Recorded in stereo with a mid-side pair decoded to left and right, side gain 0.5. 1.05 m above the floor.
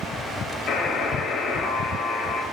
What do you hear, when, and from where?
0.7 s a buzzer: 65° left, 10 m